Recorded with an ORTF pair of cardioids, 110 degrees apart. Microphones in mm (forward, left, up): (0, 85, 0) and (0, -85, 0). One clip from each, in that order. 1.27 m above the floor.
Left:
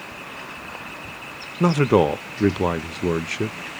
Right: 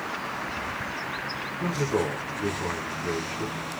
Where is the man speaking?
60° left, 0.5 m.